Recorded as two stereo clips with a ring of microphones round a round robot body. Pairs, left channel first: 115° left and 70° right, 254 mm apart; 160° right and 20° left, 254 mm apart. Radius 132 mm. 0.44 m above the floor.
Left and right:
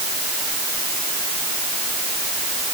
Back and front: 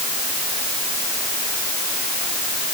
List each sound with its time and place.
Only background noise.